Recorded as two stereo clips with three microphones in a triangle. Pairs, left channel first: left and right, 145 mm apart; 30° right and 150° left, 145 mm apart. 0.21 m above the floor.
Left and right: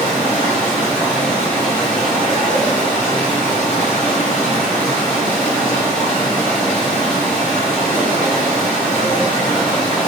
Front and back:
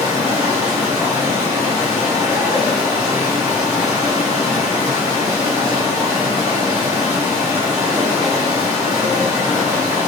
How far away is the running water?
About 1.9 m.